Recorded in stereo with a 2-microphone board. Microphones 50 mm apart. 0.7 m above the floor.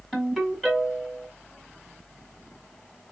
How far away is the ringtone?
About 1.7 m.